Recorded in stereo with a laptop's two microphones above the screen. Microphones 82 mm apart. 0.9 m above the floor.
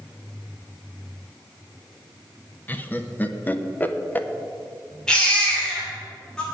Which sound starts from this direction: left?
Laughter, at 2.7 s.